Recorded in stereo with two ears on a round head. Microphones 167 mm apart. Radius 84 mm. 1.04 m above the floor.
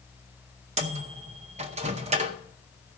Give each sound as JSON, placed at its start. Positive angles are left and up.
{"t": 0.8, "sound": "a microwave", "side_deg": -35, "distance_m": 0.7}